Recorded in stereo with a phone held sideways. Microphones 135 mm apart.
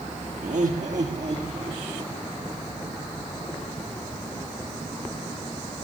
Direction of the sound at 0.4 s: 70° right (ahead or behind).